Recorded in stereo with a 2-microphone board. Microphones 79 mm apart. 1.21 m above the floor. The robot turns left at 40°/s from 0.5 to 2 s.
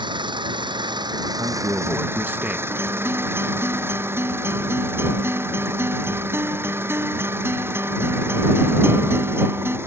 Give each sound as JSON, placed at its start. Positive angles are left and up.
{"t": 0.0, "sound": "an engine running", "azimuth_deg": -90}
{"t": 1.4, "sound": "a man speaking", "side_deg": -50}
{"t": 2.7, "sound": "a guitar", "side_deg": -35}